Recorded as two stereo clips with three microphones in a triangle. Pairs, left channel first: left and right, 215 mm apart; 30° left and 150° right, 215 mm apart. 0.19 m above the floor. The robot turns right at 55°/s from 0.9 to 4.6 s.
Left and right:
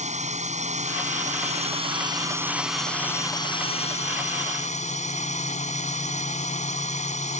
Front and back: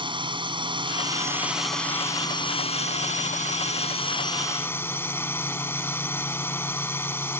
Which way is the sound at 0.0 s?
100° right.